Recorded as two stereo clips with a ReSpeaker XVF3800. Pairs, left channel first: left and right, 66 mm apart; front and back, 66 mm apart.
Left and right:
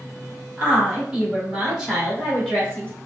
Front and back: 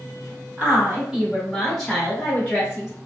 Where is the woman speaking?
140° right, 1.2 m; by 2.9 s 15° left, 1.2 m.